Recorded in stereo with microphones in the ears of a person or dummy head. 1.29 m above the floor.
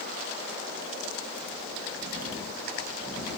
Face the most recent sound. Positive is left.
No sound to turn to.